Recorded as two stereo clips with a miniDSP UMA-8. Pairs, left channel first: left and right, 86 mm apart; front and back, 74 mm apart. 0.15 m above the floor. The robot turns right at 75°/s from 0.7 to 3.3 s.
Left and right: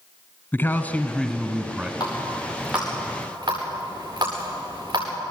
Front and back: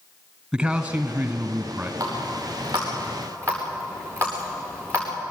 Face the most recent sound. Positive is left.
turn(degrees=-130)